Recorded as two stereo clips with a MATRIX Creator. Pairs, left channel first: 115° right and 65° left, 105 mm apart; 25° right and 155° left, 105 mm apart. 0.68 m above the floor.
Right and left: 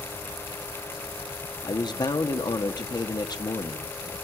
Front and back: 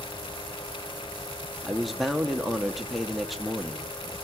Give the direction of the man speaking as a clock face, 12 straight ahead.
4 o'clock.